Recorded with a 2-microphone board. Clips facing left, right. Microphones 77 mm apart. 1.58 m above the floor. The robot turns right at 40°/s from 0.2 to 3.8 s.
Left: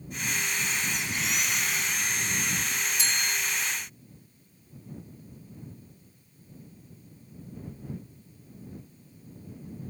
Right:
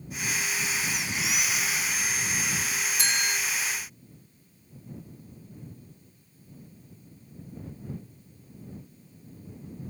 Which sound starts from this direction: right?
A bell, at 3.0 s.